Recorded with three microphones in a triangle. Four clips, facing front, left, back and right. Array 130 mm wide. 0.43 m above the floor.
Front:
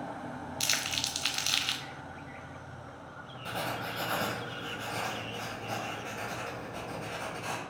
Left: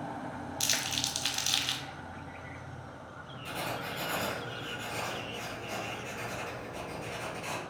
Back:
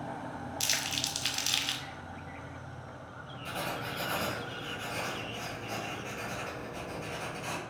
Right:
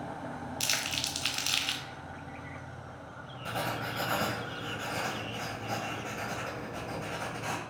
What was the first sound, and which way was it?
Crumpling, 25° right.